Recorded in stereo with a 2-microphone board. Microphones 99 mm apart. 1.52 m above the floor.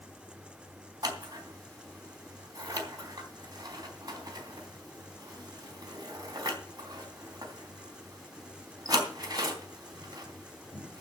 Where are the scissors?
40° right (ahead or behind), 3.5 m.